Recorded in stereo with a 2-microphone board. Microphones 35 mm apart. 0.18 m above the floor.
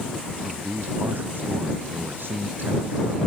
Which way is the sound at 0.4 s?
80° right.